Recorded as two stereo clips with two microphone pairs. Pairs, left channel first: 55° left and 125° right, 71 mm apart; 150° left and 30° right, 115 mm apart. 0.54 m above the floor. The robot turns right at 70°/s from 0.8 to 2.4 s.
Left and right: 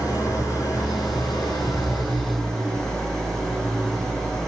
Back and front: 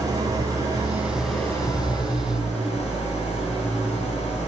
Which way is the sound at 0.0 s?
30° left.